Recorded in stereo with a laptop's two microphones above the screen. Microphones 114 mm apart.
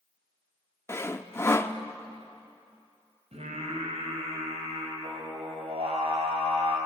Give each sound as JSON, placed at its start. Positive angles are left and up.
{"t": 0.9, "sound": "sawing", "side_deg": 25, "distance_m": 0.7}
{"t": 3.3, "sound": "singing", "side_deg": -70, "distance_m": 3.5}